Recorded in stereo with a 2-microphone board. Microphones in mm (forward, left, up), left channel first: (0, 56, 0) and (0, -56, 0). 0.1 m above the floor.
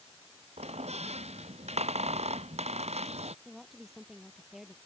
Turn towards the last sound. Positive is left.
turn(degrees=0)  # may be behind; listen again after turning